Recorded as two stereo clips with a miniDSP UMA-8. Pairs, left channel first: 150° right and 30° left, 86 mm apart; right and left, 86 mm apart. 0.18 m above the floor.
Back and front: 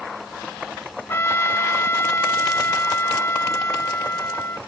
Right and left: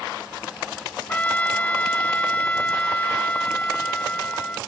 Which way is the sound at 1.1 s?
145° right.